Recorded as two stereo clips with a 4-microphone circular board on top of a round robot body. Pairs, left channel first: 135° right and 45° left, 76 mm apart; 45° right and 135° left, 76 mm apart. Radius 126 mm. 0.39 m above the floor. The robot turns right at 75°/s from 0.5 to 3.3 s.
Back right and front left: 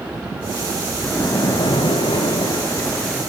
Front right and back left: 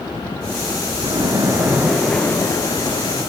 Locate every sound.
1.0 s a splash: 150° left, 3.5 m; by 3.2 s 45° right, 3.5 m